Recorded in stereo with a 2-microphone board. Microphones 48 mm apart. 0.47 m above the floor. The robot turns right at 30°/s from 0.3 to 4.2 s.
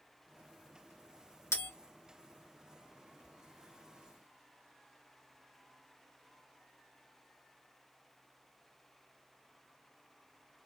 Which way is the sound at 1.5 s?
75° left (ahead or behind).